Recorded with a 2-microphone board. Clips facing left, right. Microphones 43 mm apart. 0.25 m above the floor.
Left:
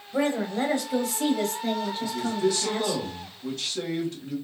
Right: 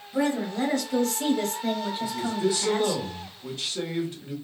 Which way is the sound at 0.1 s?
35° left (ahead or behind).